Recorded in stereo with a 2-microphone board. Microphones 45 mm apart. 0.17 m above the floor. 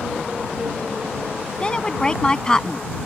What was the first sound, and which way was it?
A woman speaking, 20° left (ahead or behind).